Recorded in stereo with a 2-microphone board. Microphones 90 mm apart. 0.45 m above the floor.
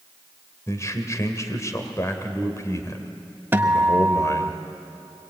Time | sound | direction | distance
0.7 | a man speaking | 35° left (ahead or behind) | 1.9 m
3.5 | a guitar | 25° right (ahead or behind) | 1.0 m